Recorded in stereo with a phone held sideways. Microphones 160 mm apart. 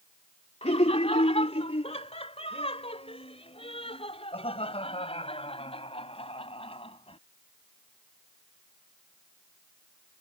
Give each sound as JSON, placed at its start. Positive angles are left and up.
{"t": 0.6, "sound": "laughter", "side_deg": 40}